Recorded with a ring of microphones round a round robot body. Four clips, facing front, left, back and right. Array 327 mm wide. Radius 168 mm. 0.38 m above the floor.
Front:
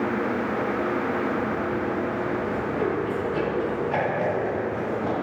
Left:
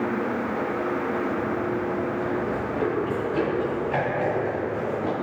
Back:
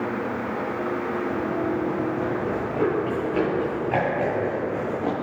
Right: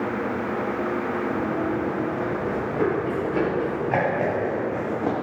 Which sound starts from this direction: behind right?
Running footsteps, at 1.3 s.